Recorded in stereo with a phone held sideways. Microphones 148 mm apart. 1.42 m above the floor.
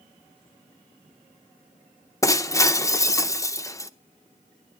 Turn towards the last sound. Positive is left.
turn(degrees=20)  # may be behind; listen again after turning